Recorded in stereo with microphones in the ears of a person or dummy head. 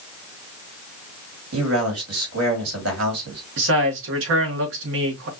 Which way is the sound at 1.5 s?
80° right.